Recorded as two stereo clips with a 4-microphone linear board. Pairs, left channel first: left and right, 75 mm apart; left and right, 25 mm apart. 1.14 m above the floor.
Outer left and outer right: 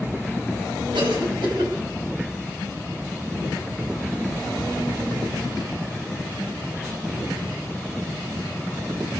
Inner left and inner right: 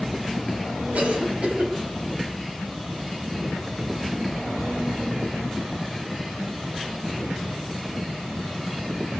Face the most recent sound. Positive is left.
turn(degrees=-80)